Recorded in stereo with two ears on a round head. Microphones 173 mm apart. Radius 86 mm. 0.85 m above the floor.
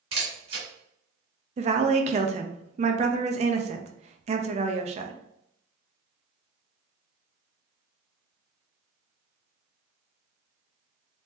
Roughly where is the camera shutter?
Right.